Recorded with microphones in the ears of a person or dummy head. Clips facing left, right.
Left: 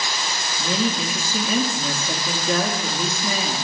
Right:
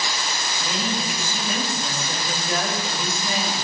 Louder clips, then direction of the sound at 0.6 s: Left 5 dB; 65° left (ahead or behind).